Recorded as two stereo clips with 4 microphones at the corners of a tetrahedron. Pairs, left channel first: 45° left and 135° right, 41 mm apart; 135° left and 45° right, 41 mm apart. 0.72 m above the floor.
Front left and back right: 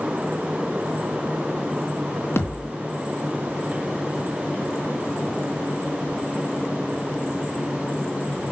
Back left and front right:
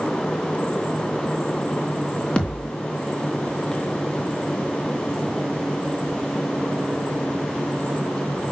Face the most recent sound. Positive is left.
turn(degrees=70)